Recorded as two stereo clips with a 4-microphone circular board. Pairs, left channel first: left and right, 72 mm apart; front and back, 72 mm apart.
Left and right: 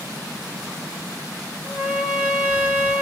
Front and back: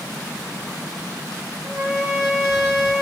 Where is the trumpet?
155° right, 1.0 m.